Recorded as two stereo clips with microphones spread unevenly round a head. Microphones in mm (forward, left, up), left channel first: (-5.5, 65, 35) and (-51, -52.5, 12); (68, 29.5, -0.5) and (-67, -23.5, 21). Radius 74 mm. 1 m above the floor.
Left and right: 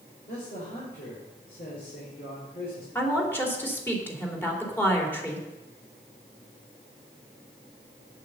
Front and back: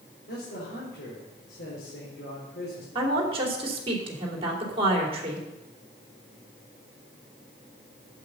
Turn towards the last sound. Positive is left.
turn(degrees=145)